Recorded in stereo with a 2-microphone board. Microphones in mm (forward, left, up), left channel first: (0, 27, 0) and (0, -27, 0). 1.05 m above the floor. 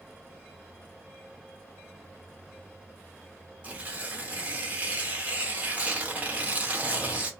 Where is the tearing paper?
30° right (ahead or behind), 0.8 m.